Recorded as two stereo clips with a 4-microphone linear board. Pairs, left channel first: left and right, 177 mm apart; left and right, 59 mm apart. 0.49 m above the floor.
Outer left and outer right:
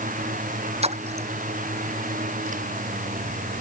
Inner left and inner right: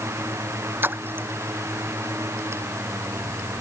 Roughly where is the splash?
Right.